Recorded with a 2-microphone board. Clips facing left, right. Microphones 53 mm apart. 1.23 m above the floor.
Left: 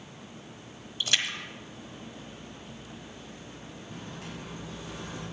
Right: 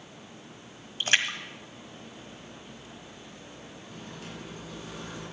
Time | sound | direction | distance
1.0 | a splash | 40° right (ahead or behind) | 1.4 m
3.9 | a microwave | 75° left (ahead or behind) | 7 m